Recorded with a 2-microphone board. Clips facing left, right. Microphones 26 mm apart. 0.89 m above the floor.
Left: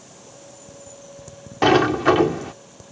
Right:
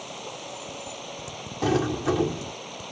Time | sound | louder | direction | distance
0.0 | running water | right 8 dB | 55° right (ahead or behind) | ?
1.6 | a sliding door | left 9 dB | 55° left (ahead or behind) | ?